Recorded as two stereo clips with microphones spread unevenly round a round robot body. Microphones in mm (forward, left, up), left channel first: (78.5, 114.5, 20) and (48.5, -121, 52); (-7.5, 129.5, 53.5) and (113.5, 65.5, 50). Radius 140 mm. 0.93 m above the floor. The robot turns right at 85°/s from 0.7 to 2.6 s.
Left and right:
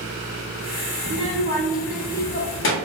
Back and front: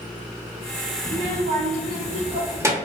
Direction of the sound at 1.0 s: 90° right.